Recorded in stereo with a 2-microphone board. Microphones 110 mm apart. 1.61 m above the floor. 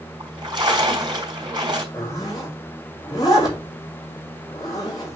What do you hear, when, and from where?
0.2 s a splash: 40° right (ahead or behind), 3 m
1.9 s a zipper: 35° left (ahead or behind), 2.5 m